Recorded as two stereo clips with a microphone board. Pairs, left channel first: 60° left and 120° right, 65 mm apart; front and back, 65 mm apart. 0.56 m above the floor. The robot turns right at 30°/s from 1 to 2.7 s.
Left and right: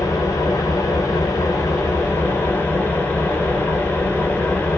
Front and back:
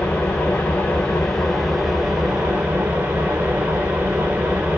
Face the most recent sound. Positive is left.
turn(degrees=120)